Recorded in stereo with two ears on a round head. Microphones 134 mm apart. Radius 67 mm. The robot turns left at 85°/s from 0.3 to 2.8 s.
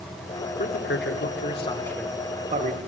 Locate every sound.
0.6 s a man speaking: 120° left, 3 m; by 2.8 s 65° right, 3 m